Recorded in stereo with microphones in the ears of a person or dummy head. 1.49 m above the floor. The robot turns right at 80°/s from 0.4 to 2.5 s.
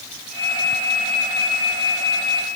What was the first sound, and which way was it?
Only background noise.